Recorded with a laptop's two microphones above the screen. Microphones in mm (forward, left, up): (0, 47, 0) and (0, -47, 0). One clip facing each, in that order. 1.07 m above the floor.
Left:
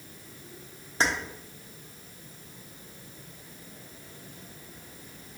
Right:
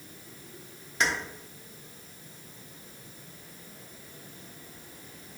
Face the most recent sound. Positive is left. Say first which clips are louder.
# left 1 dB
turn(degrees=35)  # may be behind; listen again after turning